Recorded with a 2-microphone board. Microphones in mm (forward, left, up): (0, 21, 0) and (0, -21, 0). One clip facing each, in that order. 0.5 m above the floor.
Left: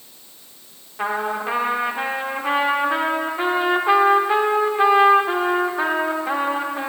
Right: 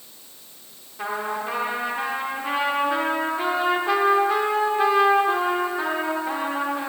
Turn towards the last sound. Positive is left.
turn(degrees=25)  # may be behind; listen again after turning